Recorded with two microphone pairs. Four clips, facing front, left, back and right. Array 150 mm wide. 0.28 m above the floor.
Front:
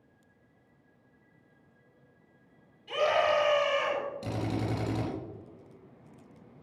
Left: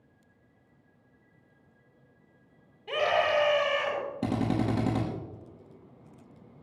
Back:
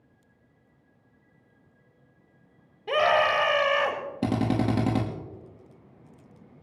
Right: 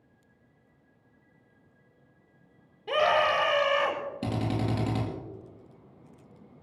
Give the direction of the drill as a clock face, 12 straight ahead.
6 o'clock.